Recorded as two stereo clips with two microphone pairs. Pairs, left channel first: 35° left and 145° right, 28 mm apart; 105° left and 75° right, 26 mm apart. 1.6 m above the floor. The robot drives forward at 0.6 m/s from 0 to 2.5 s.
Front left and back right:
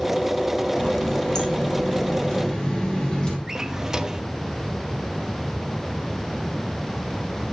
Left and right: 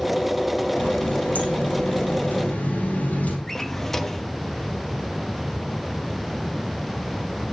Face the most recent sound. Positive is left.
turn(degrees=170)